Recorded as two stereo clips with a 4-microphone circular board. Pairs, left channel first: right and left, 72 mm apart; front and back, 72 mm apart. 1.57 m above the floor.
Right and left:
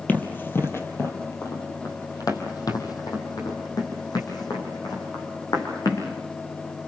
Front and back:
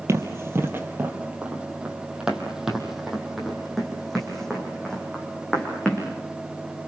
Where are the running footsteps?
150° right, 2.5 m; by 6.1 s 80° right, 6 m.